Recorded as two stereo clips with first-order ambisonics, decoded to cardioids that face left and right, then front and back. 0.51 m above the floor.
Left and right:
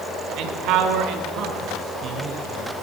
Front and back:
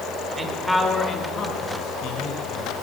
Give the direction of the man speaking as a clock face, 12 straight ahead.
4 o'clock.